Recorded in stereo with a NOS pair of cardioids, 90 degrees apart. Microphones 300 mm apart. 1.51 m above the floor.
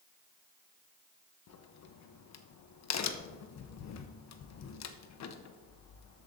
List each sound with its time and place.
1.5 s a crack: 65° left, 1.0 m